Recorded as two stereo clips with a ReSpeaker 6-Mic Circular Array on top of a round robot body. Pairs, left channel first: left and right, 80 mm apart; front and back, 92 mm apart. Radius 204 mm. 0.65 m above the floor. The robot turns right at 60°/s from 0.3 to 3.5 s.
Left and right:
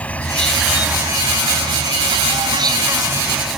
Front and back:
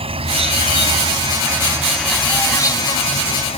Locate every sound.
0.0 s an insect: 165° left; by 3.6 s 5° right